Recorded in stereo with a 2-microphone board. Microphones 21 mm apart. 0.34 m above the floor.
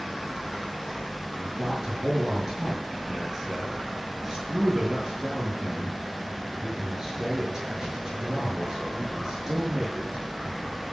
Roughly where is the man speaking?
Right.